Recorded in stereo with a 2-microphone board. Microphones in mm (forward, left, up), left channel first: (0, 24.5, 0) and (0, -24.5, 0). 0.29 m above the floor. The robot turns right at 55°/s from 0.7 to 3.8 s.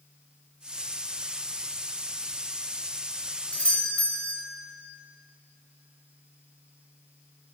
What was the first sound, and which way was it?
A doorbell, 25° left (ahead or behind).